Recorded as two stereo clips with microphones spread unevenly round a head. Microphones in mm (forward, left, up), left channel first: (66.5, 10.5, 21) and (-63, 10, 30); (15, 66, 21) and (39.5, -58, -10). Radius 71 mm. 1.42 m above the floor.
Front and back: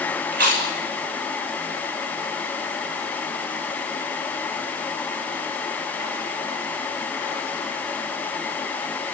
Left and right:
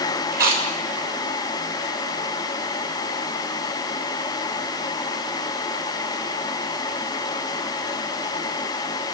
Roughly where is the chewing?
Behind right.